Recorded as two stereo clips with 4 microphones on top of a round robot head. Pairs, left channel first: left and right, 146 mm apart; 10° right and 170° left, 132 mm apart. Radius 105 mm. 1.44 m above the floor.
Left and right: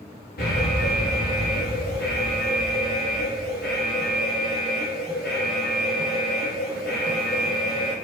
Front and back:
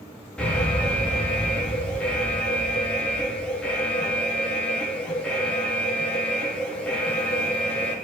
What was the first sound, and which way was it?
An alarm, 70° left.